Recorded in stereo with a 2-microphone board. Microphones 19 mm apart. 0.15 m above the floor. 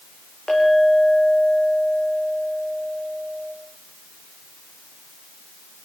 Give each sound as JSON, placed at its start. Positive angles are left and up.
{"t": 0.5, "sound": "a clink", "side_deg": 65, "distance_m": 6.5}